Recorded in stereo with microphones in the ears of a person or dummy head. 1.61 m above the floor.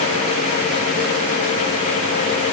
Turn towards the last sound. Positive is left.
No sound to turn to.